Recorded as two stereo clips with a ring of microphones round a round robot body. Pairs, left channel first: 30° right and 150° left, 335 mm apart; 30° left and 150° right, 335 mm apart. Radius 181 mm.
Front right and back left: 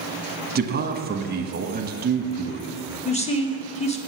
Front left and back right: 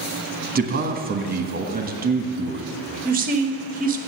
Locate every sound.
0.6 s a man speaking: straight behind, 1.3 m
3.0 s a woman speaking: 95° right, 1.4 m